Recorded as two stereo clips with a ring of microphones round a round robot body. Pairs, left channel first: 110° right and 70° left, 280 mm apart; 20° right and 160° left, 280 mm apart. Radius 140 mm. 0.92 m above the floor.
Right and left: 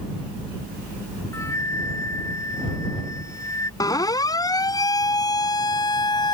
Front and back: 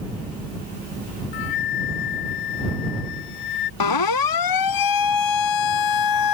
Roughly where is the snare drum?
No snare drum in this recording.